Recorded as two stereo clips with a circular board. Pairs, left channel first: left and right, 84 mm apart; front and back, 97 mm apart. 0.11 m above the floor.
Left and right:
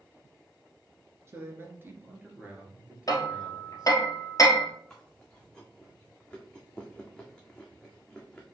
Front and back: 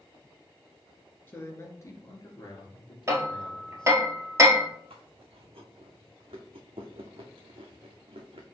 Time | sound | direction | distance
1.3 | a man speaking | 55° right | 1.6 m
3.1 | hammering | 125° left | 1.5 m
4.9 | chewing | 175° left | 1.5 m